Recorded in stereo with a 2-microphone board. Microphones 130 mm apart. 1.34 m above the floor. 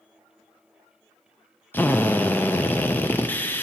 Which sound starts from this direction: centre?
A drill, at 1.7 s.